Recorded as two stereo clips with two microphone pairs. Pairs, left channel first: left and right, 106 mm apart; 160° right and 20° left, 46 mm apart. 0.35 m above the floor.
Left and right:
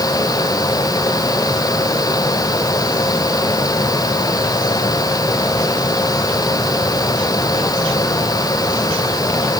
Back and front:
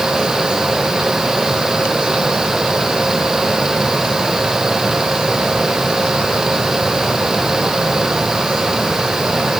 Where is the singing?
I don't hear singing.